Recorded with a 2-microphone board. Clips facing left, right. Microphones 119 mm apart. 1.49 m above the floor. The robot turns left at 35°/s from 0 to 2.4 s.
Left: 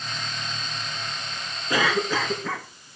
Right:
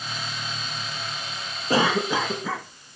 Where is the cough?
30° right (ahead or behind), 2 m; by 2.7 s 5° right (ahead or behind), 2 m.